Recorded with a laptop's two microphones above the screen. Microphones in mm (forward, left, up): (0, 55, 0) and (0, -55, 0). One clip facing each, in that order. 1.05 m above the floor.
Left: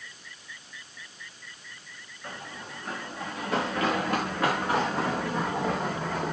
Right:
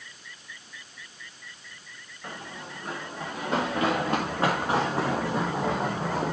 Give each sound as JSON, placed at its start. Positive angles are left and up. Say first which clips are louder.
{"t": 2.2, "sound": "running footsteps", "louder": "right 1 dB", "side_deg": -25, "distance_m": 6.0}